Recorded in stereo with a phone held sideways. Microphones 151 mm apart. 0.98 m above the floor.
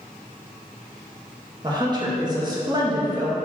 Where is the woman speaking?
30° right (ahead or behind), 1.0 m.